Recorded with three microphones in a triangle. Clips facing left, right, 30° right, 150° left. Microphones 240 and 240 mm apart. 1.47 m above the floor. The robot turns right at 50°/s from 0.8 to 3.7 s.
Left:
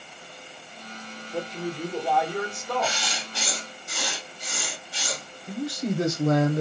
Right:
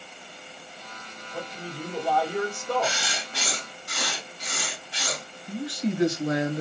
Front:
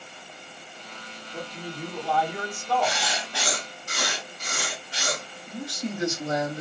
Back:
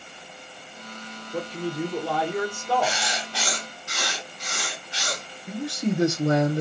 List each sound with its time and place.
1.3 s a man speaking: 135° left, 1.1 m; by 3.0 s 140° right, 1.1 m
2.8 s writing: 130° right, 1.1 m; by 5.2 s 85° right, 1.1 m
5.5 s a man speaking: 130° left, 0.8 m